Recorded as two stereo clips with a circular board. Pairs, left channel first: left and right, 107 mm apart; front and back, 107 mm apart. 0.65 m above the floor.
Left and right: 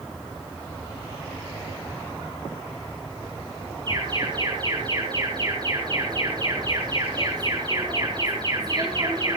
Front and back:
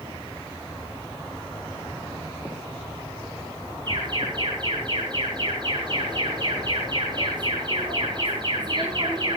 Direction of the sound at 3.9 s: 135° right.